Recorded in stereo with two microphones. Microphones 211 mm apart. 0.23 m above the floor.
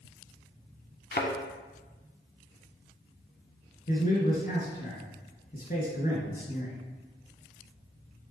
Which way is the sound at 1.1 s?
55° left (ahead or behind).